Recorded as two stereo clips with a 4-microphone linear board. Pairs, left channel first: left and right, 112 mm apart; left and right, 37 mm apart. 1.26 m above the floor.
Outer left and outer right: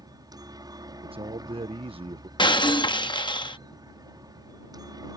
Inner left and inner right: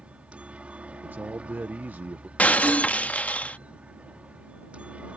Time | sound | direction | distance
0.0 | a helicopter | 35° right (ahead or behind) | ?
1.0 | a man speaking | 55° right (ahead or behind) | ?
2.4 | breaking glass | 45° left (ahead or behind) | ?